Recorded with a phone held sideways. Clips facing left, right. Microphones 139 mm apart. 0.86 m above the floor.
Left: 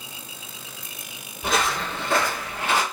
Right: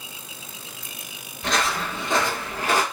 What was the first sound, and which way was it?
Footsteps, 10° left (ahead or behind).